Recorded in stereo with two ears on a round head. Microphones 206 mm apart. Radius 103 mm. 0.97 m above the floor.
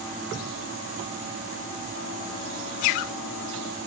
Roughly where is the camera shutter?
I don't hear a camera shutter.